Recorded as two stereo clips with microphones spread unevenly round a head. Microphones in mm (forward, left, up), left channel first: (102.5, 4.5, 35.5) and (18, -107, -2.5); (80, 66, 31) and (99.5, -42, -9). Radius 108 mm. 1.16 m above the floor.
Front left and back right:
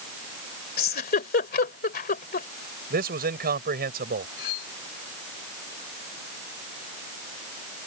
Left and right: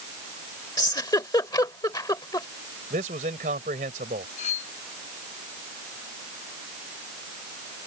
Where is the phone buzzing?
I don't hear a phone buzzing.